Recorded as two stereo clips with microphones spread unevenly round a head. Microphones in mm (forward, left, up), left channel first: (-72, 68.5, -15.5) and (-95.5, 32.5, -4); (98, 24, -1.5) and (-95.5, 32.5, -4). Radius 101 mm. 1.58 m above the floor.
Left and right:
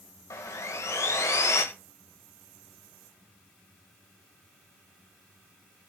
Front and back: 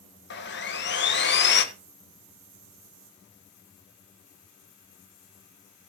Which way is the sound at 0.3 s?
30° left.